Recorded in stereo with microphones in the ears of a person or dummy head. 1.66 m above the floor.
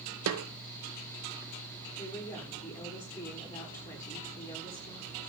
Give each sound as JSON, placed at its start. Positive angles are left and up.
{"t": 0.3, "sound": "a snare drum", "side_deg": -85, "distance_m": 1.0}
{"t": 2.0, "sound": "a woman speaking", "side_deg": 10, "distance_m": 5.5}